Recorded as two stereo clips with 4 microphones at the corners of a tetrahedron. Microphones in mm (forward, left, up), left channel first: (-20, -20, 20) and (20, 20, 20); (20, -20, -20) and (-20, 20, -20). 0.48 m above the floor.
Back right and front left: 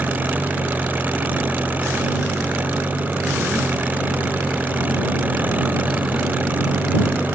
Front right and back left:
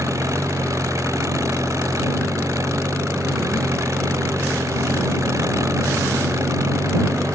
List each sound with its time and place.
0.0 s an engine running: 105° left